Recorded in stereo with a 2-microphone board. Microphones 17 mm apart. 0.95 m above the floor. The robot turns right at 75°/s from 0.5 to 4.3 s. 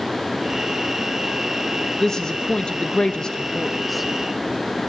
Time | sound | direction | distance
2.0 | a woman speaking | 30° left | 1.1 m